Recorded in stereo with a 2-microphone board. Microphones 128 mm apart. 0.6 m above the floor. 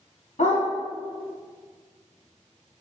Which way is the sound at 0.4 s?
75° left (ahead or behind).